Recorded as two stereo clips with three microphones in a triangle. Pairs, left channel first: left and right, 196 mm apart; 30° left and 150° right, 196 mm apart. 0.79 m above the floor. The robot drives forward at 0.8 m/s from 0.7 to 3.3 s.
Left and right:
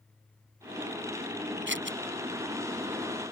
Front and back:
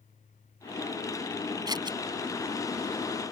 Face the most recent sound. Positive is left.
turn(degrees=-95)